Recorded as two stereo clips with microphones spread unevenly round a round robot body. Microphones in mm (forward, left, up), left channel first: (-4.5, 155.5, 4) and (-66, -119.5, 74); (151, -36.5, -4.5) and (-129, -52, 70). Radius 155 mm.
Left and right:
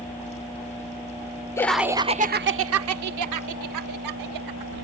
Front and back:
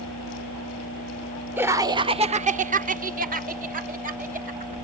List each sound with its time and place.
1.6 s laughter: 70° left; by 4.8 s 110° right